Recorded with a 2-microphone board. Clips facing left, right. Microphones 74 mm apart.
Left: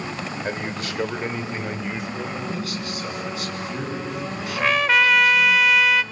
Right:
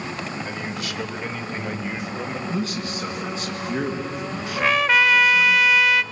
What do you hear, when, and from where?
0.4 s a man speaking: 50° left (ahead or behind), 2 m; by 2.4 s 15° right (ahead or behind), 2 m
2.5 s a man speaking: 25° right (ahead or behind), 4.5 m
4.6 s a trumpet: centre (ahead or behind), 0.6 m